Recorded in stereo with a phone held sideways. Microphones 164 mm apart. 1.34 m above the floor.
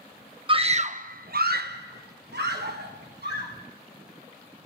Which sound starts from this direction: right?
A scream, at 0.5 s.